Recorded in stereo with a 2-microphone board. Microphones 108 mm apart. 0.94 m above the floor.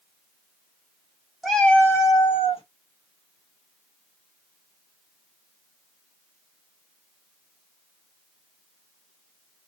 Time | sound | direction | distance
1.4 | a cat meowing | centre (ahead or behind) | 1.1 m